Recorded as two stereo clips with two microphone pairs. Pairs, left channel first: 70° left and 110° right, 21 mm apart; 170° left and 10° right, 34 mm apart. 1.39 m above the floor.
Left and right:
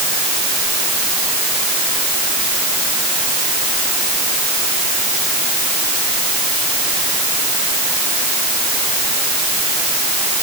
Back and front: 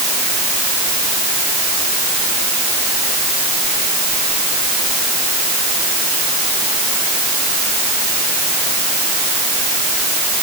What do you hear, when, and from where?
Only background noise.